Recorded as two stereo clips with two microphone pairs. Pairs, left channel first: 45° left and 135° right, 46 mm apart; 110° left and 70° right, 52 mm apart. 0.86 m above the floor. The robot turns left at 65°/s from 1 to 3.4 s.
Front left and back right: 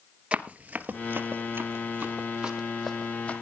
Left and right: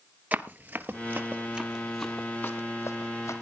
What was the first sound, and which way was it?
Running footsteps, 95° right.